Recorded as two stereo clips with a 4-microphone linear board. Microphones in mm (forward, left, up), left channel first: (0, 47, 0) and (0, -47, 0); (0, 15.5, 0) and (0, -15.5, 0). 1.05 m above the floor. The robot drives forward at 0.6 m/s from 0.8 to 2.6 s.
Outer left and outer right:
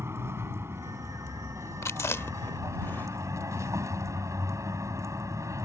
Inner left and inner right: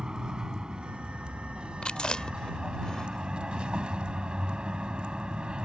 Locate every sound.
0.0 s a vehicle: 30° right (ahead or behind); by 5.7 s 35° right (ahead or behind)
1.8 s chewing: 30° left (ahead or behind); by 3.7 s 25° left (ahead or behind)